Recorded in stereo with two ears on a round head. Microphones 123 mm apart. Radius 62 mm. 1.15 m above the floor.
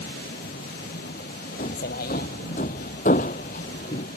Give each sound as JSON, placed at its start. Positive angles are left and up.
{"t": 0.0, "sound": "a vehicle", "side_deg": 80}
{"t": 1.6, "sound": "hammering", "side_deg": 55}